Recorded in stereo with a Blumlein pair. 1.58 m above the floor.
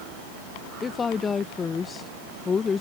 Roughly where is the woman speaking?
Ahead.